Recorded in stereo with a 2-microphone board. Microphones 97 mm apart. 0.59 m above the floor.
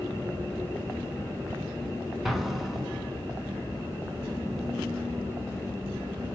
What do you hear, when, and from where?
2.2 s an explosion: centre (ahead or behind), 4 m